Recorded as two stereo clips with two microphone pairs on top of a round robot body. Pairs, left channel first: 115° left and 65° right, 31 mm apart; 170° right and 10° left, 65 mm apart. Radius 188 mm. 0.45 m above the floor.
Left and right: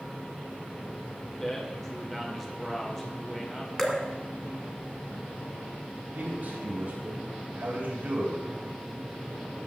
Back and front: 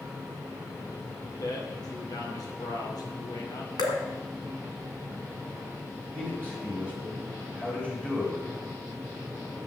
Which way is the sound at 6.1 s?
100° right.